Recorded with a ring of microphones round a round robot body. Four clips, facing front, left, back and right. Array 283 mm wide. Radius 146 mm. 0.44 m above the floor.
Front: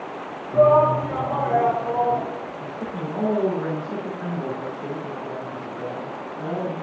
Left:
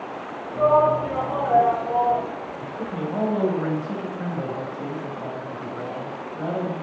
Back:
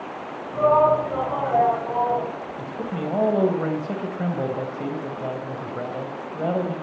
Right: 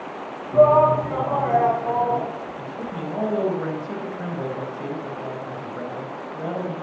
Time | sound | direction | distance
0.5 | a shout | 75° right | 4.5 m
2.6 | a man speaking | 175° right | 3 m